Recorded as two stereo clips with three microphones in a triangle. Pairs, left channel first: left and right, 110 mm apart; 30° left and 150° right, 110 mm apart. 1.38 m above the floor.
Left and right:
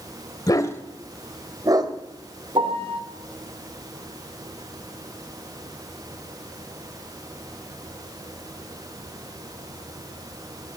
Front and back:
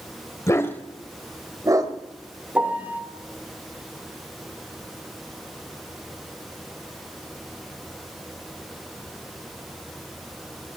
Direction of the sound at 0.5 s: 70° left.